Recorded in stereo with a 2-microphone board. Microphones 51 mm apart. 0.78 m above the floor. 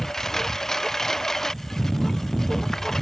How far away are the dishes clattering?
I don't hear dishes clattering.